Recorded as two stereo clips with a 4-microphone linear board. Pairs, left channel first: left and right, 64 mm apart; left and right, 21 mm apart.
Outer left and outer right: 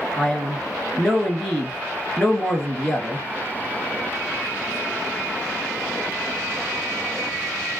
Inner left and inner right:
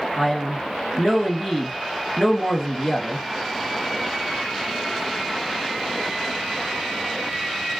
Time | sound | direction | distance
0.2 | a man speaking | 10° left (ahead or behind) | 1.2 m